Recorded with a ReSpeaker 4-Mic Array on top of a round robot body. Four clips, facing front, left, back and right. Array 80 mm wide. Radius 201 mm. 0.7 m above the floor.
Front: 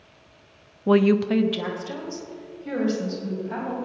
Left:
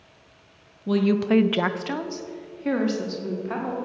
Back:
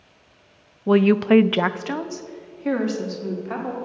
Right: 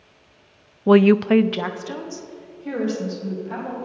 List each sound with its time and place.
0.9 s a woman speaking: 80° right, 0.5 m; by 3.8 s 145° left, 2 m